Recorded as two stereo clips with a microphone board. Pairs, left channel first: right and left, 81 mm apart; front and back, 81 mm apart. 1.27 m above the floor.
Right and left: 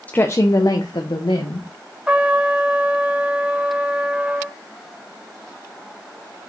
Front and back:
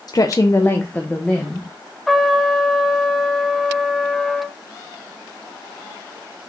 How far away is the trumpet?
About 1.0 m.